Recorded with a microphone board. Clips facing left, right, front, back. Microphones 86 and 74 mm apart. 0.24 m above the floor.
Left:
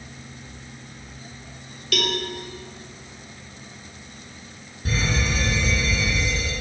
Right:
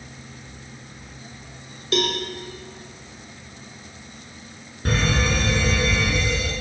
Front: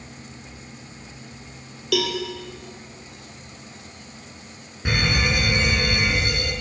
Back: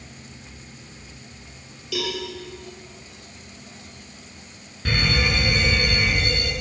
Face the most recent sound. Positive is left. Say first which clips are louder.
# right 3 dB, even
turn(degrees=-70)